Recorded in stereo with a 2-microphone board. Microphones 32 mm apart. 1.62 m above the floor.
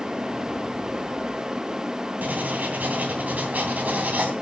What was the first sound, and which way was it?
Writing, 55° right (ahead or behind).